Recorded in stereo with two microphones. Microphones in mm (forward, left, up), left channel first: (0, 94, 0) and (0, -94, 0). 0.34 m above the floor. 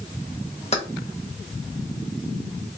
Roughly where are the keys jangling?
Left.